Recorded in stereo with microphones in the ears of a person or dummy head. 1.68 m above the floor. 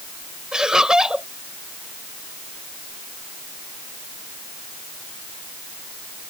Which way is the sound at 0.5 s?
10° right (ahead or behind).